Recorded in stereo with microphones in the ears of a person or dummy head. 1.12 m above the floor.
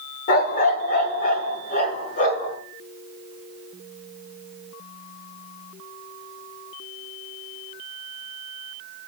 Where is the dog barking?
50° left (ahead or behind), 1.3 m.